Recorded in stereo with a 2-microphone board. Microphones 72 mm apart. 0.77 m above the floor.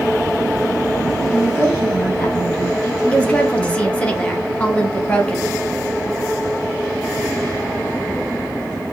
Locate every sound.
1.3 s a woman speaking: 5° left (ahead or behind), 2 m
3.1 s a woman speaking: 20° left (ahead or behind), 0.9 m